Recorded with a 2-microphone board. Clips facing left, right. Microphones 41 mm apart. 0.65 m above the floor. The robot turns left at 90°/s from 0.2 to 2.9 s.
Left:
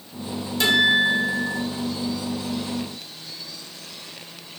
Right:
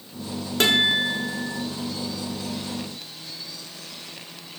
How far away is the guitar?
About 1.2 m.